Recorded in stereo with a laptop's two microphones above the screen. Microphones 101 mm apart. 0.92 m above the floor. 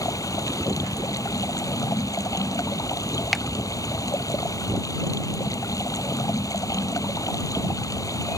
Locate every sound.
0.0 s running water: 35° left (ahead or behind)
3.3 s a finger snap: centre (ahead or behind)